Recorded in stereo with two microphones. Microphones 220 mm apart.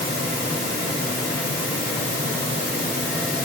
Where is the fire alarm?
I don't hear a fire alarm.